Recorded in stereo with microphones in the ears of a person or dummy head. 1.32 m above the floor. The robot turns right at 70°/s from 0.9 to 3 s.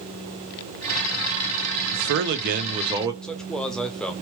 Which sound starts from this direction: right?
A man speaking, at 1.9 s.